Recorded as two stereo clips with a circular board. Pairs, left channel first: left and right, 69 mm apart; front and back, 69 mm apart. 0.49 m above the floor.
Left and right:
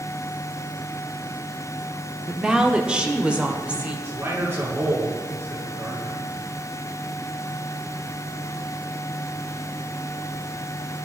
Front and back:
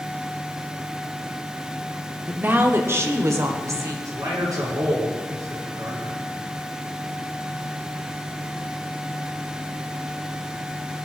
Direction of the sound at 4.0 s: 145° right.